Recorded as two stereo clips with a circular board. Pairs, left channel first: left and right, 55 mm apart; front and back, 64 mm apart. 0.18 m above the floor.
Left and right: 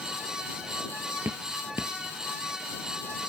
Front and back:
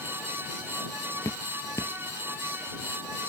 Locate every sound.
1.2 s dripping: 40° right